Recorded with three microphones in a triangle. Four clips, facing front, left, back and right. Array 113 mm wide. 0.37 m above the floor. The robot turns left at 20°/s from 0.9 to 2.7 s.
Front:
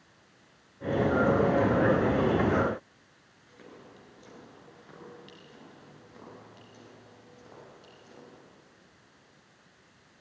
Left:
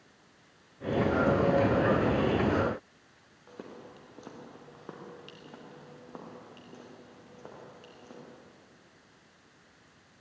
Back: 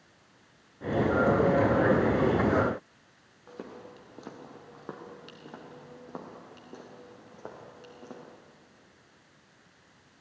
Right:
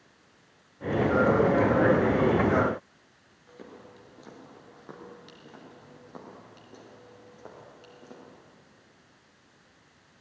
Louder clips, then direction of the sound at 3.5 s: Left 1 dB, back 7 dB; 150° left.